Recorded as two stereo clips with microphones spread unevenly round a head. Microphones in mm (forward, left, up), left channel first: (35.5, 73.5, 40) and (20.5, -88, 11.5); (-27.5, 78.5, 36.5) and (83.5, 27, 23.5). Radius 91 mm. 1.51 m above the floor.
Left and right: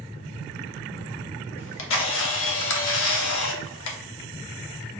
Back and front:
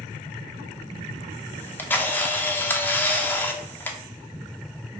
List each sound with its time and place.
1.6 s a camera shutter: 80° left, 0.7 m